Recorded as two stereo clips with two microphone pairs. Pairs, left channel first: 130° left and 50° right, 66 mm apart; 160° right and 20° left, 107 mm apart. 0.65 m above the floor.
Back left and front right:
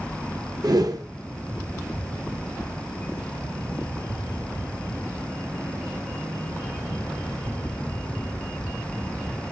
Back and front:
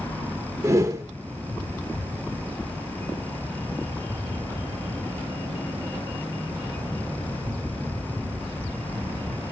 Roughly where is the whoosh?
Ahead right.